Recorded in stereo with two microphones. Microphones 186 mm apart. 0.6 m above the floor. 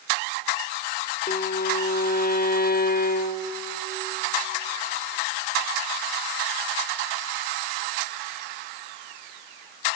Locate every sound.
1.3 s a violin: 50° left (ahead or behind), 0.6 m